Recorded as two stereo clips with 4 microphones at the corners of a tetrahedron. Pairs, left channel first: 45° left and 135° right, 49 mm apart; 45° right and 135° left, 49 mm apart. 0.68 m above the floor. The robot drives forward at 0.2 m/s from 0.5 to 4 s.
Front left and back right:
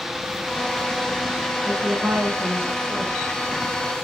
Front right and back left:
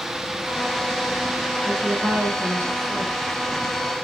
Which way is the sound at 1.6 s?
165° left.